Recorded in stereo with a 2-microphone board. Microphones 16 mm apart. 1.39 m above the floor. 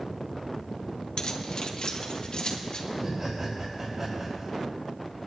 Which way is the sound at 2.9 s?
40° right (ahead or behind).